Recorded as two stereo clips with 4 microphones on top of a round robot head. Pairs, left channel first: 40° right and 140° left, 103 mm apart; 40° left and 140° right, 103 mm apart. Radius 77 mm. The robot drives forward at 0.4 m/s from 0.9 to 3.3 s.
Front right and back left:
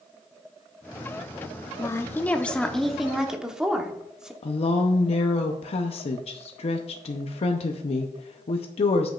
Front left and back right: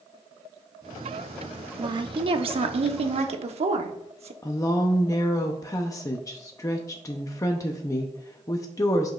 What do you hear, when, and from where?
1.8 s a woman speaking: 100° right, 0.8 m; by 4.3 s 135° right, 1.0 m
4.4 s a woman speaking: 20° right, 0.6 m